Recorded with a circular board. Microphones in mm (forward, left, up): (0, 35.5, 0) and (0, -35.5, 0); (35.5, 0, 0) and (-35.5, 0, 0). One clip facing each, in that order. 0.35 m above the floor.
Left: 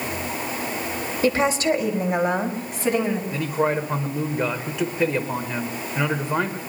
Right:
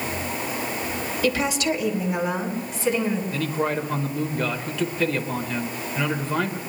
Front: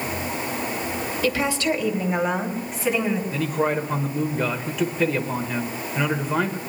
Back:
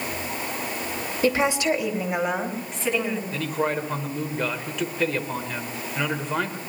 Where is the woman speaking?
135° left, 1.9 m; by 3.2 s 75° left, 3 m.